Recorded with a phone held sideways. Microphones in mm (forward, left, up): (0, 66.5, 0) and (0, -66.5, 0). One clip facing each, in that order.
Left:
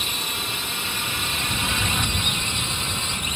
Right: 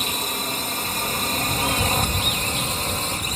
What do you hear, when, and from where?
0.0 s a drone: 35° right (ahead or behind)